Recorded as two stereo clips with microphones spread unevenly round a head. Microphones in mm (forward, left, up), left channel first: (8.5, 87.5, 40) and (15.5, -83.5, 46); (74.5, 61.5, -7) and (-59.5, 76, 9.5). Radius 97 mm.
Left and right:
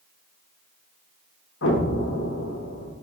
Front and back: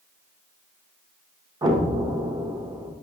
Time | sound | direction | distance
1.6 | an explosion | 115° left | 0.9 m